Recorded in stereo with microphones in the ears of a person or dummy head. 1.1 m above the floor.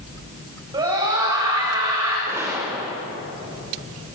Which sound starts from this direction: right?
A scream, at 0.7 s.